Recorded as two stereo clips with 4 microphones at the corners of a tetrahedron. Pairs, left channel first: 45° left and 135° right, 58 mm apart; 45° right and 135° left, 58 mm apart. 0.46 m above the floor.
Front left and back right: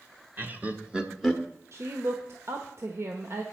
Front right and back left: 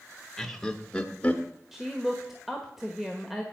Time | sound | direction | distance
0.4 | laughter | 130° right | 1.2 m
1.7 | a woman speaking | 140° right | 1.2 m